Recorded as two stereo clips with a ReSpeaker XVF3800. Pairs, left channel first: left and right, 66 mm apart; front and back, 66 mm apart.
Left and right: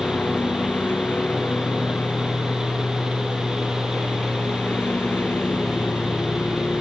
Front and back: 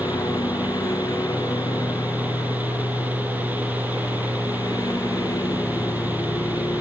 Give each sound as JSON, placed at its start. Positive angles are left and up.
{"t": 0.0, "sound": "a lawn mower", "azimuth_deg": 20}